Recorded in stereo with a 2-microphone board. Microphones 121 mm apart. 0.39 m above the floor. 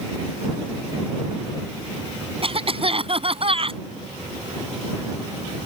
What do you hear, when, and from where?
2.4 s a cough: 50° right (ahead or behind)